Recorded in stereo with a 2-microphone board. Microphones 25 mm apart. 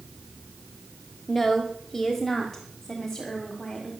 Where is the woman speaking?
5° left (ahead or behind), 1.6 m; by 3.9 s 10° left (ahead or behind), 2.5 m.